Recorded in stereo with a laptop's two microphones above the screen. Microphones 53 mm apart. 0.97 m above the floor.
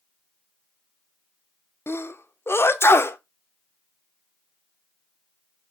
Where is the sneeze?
50° left (ahead or behind), 0.5 m.